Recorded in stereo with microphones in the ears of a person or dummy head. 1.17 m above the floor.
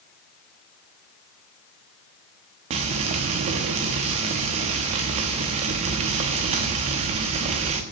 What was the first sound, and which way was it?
Frying, 35° right (ahead or behind).